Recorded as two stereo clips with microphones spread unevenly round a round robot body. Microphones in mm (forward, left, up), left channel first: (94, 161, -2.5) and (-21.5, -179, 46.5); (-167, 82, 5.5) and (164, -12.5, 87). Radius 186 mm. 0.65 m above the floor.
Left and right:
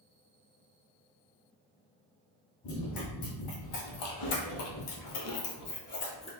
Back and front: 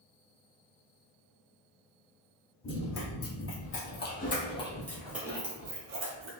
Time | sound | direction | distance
2.6 | running footsteps | 110° left | 1.5 m